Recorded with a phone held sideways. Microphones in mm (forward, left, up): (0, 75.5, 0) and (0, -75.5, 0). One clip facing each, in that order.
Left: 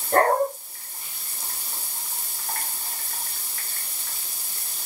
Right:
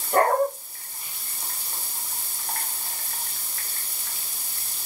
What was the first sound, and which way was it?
A dog barking, 75° left (ahead or behind).